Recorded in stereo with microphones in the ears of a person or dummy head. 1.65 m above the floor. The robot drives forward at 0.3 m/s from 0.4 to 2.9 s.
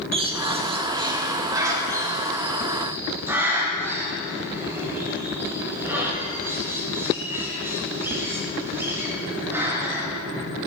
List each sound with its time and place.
0.1 s a bird: 30° right (ahead or behind), 0.6 m; by 10.1 s 15° right (ahead or behind), 1.3 m